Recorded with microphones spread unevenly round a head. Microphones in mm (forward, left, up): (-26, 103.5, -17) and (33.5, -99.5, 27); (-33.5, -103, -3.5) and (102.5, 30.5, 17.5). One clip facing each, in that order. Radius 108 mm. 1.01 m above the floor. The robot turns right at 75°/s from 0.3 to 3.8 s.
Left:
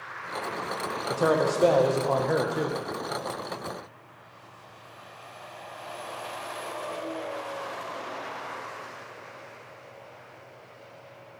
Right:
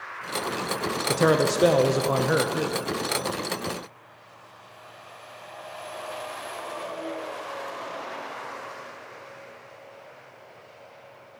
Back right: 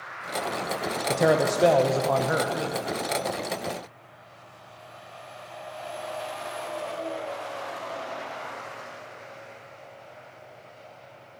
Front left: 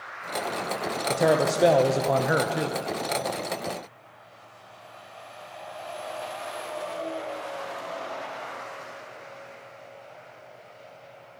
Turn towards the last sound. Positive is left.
turn(degrees=120)